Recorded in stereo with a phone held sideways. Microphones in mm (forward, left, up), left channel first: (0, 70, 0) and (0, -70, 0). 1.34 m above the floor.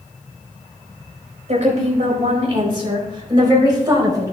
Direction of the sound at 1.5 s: 50° right (ahead or behind).